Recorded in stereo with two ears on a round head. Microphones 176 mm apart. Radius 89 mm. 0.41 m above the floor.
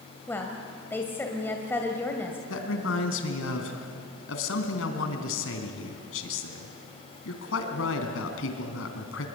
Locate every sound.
0.3 s a woman speaking: 10° left (ahead or behind), 2 m
2.5 s a man speaking: 75° left (ahead or behind), 3 m